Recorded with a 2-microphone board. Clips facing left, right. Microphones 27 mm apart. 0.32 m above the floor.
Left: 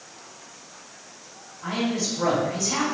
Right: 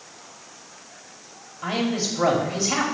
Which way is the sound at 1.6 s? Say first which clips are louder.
Right 2 dB; 40° right (ahead or behind).